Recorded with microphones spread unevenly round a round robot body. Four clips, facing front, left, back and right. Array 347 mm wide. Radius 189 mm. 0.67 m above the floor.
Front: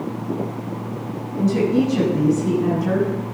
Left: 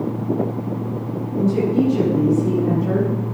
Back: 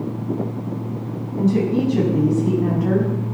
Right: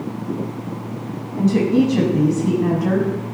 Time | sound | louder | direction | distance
1.4 | a woman speaking | right 2 dB, front 1 dB | 95° right | 6.5 m